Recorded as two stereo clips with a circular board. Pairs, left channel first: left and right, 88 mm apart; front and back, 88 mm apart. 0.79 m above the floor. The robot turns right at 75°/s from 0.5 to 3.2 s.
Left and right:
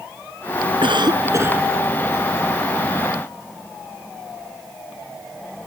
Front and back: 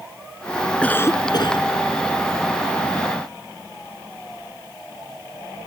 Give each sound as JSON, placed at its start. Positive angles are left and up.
{"t": 0.8, "sound": "a cough", "azimuth_deg": -80}